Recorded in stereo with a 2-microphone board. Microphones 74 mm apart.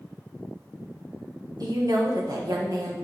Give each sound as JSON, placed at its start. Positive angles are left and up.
{"t": 1.6, "sound": "a woman speaking", "side_deg": -55, "distance_m": 1.2}